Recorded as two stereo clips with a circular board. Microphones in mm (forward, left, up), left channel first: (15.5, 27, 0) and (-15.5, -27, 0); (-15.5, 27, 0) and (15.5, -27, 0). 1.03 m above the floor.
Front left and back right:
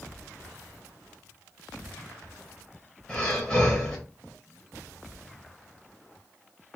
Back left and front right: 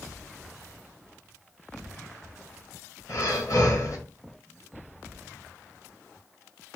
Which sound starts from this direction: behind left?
Breathing, at 3.1 s.